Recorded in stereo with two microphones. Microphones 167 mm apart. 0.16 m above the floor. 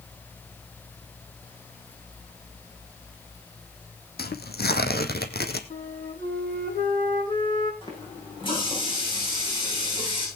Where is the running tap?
35° left (ahead or behind), 8 m.